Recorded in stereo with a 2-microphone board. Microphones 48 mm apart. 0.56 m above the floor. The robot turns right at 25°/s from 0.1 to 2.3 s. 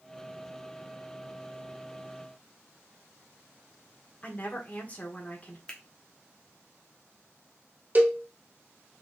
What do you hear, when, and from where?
4.2 s a woman speaking: 30° left (ahead or behind), 1.8 m
5.7 s a finger snap: 20° left (ahead or behind), 1.1 m
8.0 s a cowbell: 35° right (ahead or behind), 0.8 m